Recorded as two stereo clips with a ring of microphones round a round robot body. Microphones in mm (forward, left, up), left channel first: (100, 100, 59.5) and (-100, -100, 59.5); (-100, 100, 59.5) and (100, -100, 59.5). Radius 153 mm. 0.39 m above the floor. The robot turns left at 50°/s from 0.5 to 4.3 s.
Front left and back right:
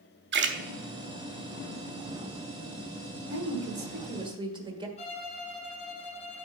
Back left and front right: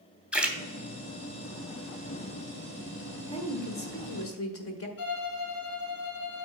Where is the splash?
130° right, 1.3 m.